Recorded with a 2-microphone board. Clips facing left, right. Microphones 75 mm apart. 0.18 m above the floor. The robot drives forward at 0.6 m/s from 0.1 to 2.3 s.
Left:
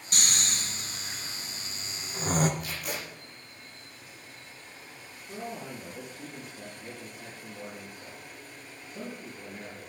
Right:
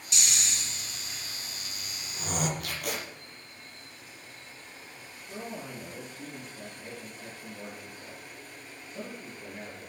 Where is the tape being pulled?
60° right (ahead or behind), 5 m.